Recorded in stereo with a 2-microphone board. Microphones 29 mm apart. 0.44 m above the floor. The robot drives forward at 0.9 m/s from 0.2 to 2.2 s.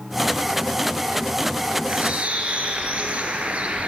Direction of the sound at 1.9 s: 55° right (ahead or behind).